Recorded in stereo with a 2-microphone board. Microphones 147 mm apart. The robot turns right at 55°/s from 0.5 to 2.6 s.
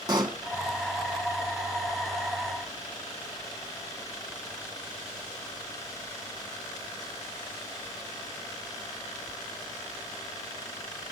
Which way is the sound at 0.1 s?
30° right (ahead or behind).